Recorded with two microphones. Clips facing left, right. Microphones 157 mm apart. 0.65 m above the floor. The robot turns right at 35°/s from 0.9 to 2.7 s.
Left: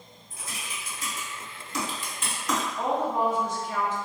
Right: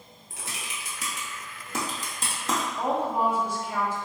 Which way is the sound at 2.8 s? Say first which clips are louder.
Even; 10° right (ahead or behind).